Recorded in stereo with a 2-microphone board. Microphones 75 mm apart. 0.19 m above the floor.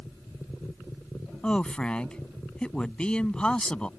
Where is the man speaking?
15° left (ahead or behind).